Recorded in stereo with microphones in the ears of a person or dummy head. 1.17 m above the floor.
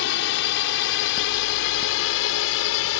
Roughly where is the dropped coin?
I don't hear a dropped coin.